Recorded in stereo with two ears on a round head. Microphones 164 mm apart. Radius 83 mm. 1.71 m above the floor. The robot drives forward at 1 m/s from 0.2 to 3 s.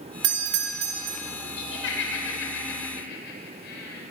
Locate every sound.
0.2 s a doorbell: 75° right (ahead or behind), 1.8 m; by 1.2 s 50° right (ahead or behind), 2 m
1.6 s laughter: 80° left, 7 m; by 4.0 s 70° left (ahead or behind), 7.5 m